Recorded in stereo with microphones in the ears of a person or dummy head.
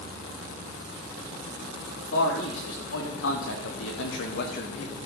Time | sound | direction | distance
2.0 | a man speaking | 80° left | 4.5 m